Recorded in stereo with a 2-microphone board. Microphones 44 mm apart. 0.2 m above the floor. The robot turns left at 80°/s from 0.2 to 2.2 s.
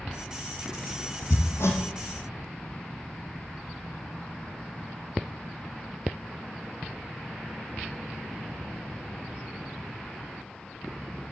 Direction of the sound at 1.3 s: 70° left (ahead or behind).